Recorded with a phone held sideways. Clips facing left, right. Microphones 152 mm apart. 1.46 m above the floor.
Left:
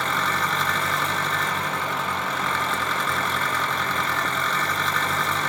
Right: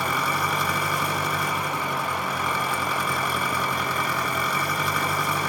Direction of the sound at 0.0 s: 10° right (ahead or behind).